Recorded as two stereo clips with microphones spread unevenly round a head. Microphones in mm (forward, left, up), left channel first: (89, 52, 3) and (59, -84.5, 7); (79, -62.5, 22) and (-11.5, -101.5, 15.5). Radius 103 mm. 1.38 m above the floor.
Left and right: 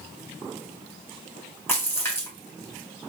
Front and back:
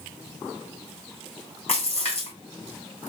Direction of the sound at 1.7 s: 5° left.